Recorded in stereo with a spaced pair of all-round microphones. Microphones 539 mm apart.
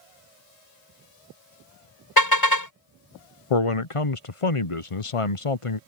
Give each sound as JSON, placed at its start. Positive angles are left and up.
{"t": 2.2, "sound": "a car horn", "side_deg": 40}
{"t": 3.5, "sound": "a man speaking", "side_deg": 70}